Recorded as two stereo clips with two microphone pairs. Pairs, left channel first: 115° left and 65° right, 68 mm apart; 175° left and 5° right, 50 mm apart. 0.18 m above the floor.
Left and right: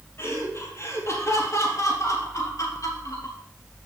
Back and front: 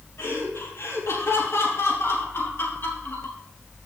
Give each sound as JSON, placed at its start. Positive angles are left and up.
{"t": 0.2, "sound": "laughter", "azimuth_deg": 160, "distance_m": 4.5}